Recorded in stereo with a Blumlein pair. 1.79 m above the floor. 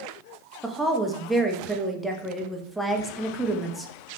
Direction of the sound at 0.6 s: Straight ahead.